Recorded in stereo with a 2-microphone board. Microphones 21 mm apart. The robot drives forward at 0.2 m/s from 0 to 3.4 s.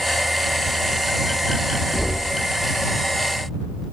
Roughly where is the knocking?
Left.